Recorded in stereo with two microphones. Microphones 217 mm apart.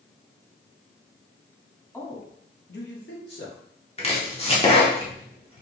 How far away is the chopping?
About 1.1 m.